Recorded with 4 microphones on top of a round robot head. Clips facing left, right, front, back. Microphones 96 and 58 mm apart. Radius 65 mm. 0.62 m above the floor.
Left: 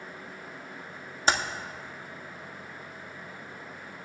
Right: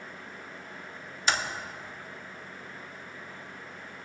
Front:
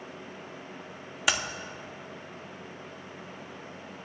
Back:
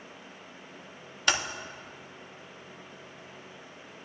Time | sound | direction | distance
1.3 | typing on a keyboard | 80° left | 1.2 m